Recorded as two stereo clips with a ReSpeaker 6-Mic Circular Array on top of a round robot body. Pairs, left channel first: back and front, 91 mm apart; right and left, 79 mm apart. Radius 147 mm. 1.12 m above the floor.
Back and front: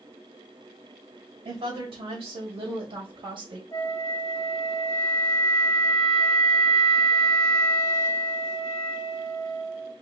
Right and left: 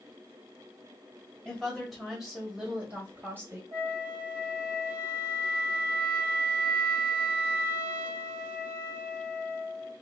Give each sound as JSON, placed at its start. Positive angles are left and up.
{"t": 1.4, "sound": "a woman speaking", "azimuth_deg": -5, "distance_m": 1.8}
{"t": 3.7, "sound": "a flute", "azimuth_deg": 110, "distance_m": 1.5}